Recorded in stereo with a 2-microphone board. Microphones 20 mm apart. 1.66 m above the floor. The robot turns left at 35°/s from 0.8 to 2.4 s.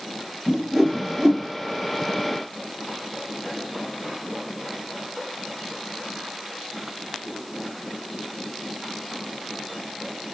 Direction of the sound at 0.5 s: 10° right (ahead or behind).